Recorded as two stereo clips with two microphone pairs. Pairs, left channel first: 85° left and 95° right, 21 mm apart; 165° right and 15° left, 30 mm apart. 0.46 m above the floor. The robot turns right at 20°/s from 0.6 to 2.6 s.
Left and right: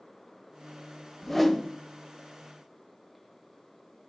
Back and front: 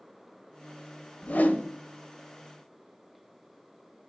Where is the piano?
No piano in this recording.